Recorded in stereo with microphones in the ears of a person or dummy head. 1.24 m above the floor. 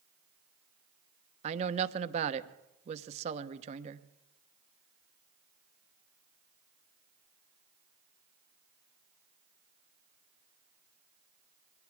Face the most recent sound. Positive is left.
turn(degrees=-35)  # may be behind; listen again after turning